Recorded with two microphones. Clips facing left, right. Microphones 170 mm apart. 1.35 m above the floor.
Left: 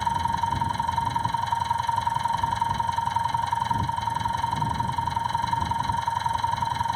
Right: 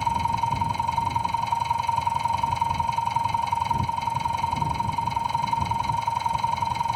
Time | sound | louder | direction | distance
0.0 | an engine running | right 1 dB | 10° right (ahead or behind) | ?